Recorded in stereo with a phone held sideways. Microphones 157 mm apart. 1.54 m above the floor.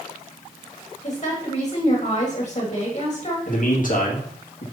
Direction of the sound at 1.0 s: 45° left (ahead or behind).